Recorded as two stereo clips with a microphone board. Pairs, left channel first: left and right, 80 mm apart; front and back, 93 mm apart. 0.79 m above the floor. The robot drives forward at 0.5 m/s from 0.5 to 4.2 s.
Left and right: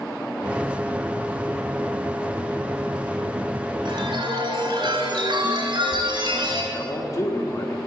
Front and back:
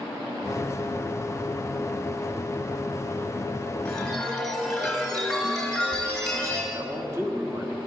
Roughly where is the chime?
Right.